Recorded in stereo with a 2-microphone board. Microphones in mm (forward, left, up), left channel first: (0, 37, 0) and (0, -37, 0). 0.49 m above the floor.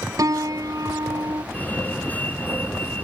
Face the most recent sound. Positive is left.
turn(degrees=25)  # may be behind; listen again after turning